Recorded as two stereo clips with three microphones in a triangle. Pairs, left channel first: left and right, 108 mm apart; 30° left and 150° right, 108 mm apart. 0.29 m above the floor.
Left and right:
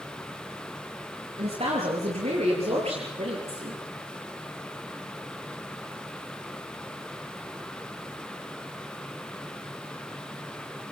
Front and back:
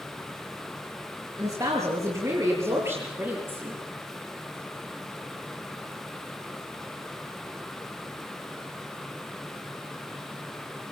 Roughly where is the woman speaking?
Right.